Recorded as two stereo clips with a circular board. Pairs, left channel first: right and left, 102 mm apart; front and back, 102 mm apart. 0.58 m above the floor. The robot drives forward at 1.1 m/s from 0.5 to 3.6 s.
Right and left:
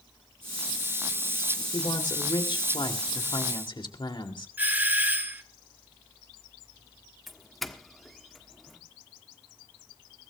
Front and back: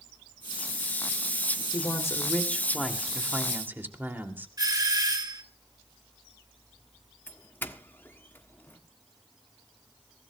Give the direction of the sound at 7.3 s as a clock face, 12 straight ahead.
12 o'clock.